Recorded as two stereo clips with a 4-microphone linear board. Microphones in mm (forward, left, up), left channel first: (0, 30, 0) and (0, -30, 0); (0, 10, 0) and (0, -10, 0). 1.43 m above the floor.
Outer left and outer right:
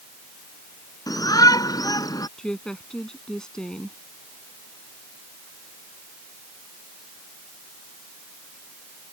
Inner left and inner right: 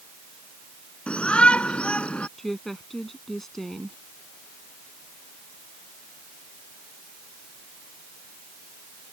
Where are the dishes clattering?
No dishes clattering in this recording.